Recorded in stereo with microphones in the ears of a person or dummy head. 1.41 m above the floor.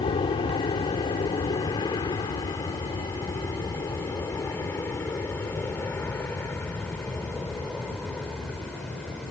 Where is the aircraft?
30° left (ahead or behind); by 9.3 s 5° left (ahead or behind).